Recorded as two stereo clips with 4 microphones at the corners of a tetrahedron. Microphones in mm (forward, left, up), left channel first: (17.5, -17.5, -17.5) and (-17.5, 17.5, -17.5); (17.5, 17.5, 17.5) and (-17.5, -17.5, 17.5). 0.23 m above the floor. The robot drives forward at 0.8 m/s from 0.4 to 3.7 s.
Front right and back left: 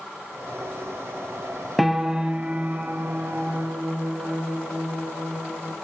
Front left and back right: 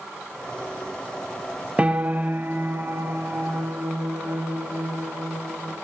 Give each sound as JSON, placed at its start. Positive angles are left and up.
{"t": 1.8, "sound": "a piano", "azimuth_deg": -145, "distance_m": 0.8}